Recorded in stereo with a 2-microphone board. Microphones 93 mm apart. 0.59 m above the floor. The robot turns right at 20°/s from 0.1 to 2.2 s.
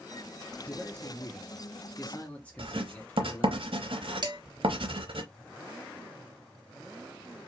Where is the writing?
75° right (ahead or behind), 0.8 m.